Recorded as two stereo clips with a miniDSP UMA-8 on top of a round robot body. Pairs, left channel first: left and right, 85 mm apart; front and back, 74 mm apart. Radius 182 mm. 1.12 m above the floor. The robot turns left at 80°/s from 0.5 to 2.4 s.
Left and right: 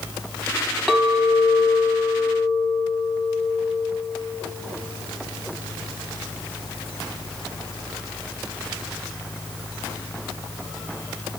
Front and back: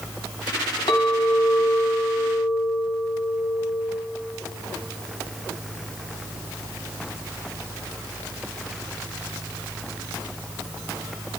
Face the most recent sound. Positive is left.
turn(degrees=-125)